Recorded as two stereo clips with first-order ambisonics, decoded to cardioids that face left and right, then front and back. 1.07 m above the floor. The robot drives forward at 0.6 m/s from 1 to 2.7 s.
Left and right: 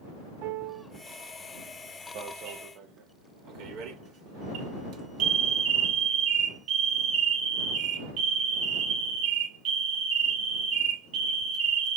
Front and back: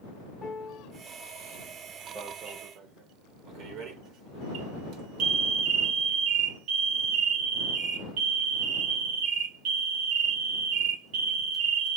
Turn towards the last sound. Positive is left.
turn(degrees=-135)